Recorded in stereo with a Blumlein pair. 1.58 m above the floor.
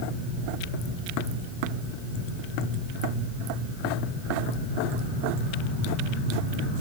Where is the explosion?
I don't hear an explosion.